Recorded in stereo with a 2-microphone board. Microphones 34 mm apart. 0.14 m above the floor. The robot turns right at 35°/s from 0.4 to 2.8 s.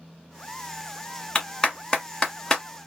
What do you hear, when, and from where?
1.4 s a clap: 25° left (ahead or behind), 1.3 m; by 2.6 s 10° left (ahead or behind), 1.3 m